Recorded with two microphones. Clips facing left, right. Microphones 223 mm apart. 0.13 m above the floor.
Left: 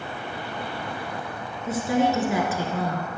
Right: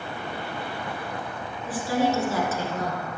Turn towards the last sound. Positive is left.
turn(degrees=5)  # may be behind; listen again after turning